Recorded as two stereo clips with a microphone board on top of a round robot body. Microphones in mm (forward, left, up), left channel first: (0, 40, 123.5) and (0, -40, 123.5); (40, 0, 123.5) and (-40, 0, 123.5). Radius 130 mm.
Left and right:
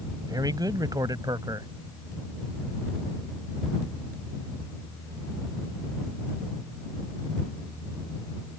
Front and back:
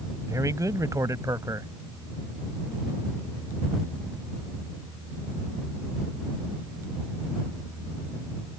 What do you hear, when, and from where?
0.3 s a man speaking: 130° right